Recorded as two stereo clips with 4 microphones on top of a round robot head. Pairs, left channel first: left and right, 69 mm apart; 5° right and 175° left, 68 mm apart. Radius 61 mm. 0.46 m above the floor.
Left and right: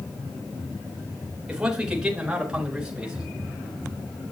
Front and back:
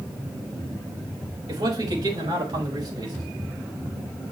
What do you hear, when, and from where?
1.5 s a man speaking: 165° right, 3.5 m; by 3.2 s 170° right, 4.5 m